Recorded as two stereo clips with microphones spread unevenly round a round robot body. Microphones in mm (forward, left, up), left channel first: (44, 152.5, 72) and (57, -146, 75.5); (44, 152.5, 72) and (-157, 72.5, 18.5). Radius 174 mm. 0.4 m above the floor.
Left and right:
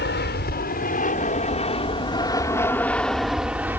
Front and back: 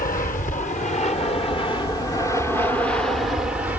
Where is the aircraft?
65° left; by 3.8 s 160° right.